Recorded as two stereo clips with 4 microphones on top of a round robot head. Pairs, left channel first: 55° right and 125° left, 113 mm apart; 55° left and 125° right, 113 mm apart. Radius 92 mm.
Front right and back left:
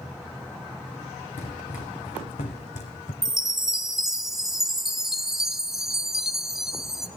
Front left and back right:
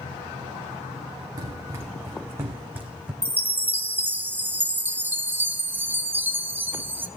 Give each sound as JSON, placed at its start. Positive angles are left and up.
{"t": 1.4, "sound": "running footsteps", "azimuth_deg": -70, "distance_m": 3.0}
{"t": 3.2, "sound": "a chime", "azimuth_deg": -155, "distance_m": 1.1}